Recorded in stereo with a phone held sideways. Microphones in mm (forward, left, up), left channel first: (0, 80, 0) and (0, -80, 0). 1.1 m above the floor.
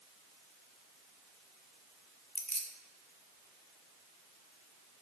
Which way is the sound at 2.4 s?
45° left (ahead or behind).